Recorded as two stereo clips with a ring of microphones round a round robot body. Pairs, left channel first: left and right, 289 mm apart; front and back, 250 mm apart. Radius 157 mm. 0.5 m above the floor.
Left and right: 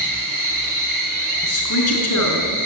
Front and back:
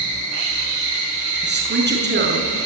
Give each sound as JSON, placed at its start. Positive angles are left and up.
{"t": 0.0, "sound": "an insect", "azimuth_deg": -170, "distance_m": 8.5}
{"t": 1.4, "sound": "a woman speaking", "azimuth_deg": 130, "distance_m": 6.0}